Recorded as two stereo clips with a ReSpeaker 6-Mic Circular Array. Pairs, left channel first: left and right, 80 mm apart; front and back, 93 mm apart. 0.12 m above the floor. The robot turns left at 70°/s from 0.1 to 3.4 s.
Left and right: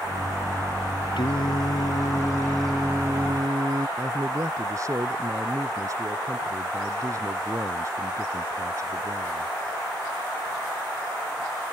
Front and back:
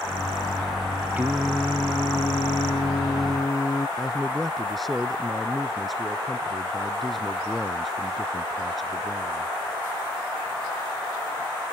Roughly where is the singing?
Left.